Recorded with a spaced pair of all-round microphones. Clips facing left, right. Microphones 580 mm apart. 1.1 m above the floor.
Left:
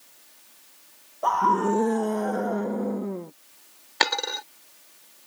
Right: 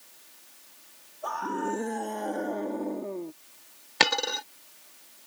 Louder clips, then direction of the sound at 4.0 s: Right 1 dB; 50° right (ahead or behind).